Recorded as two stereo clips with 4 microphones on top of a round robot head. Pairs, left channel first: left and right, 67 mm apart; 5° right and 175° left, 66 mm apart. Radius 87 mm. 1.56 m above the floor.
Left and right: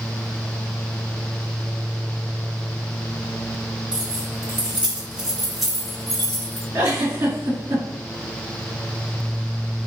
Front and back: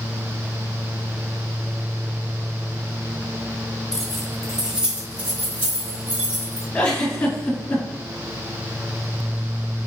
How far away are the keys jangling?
About 0.7 m.